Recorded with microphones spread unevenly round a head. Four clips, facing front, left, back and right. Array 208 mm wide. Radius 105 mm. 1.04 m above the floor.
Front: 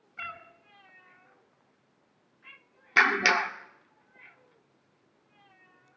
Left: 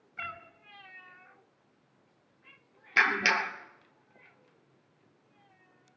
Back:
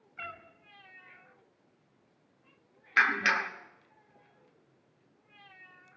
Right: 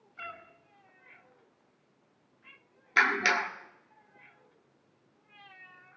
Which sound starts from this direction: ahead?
A clap, at 3.0 s.